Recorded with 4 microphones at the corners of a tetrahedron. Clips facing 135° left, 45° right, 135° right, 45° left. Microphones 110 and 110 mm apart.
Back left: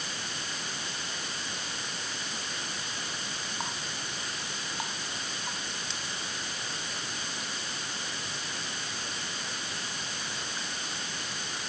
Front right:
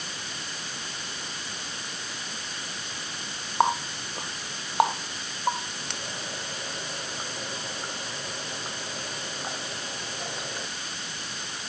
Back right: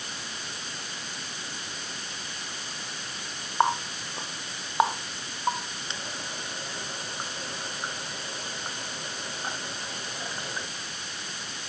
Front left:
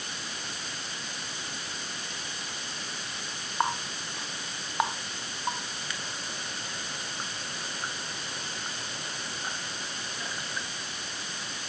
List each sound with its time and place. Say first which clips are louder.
3.6 s a running tap: front right 17 dB, back right 5 dB; 70° right